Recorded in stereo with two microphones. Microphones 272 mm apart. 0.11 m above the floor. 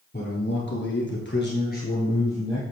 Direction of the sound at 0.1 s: 35° left (ahead or behind).